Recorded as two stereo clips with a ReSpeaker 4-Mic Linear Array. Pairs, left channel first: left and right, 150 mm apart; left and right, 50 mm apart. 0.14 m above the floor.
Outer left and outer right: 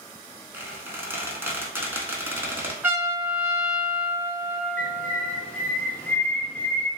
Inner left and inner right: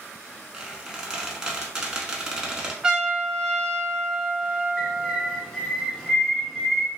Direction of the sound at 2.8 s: 15° right (ahead or behind).